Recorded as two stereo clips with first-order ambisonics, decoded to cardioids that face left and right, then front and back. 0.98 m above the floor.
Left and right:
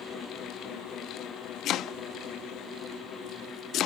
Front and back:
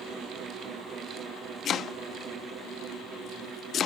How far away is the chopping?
About 0.6 m.